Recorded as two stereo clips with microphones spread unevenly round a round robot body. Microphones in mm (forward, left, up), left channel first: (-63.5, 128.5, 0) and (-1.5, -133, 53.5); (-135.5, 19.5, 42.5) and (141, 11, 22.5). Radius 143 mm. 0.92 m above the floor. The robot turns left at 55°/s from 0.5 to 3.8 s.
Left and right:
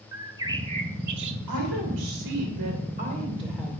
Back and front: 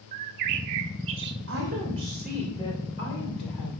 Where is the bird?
10° right, 0.5 m; by 1.4 s 60° right, 0.5 m.